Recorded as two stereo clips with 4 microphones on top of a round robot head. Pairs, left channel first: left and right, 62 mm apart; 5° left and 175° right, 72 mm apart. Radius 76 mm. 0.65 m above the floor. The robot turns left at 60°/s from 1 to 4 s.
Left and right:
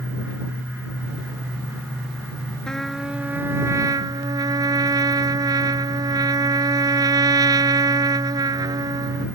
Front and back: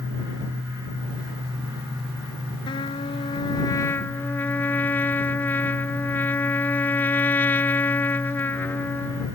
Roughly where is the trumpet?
Ahead.